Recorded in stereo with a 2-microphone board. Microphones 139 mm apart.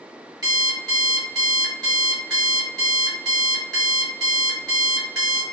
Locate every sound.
0.4 s an alarm clock: 30° right (ahead or behind), 1.0 m